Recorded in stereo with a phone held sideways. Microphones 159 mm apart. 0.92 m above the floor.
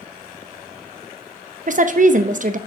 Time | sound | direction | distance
1.7 | a woman speaking | 55° right (ahead or behind) | 0.5 m